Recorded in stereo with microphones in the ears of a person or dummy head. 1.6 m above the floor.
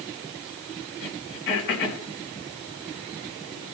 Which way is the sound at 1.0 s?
55° left (ahead or behind).